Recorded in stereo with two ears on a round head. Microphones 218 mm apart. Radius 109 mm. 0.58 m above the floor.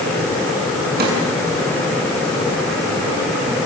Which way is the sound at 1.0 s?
40° right (ahead or behind).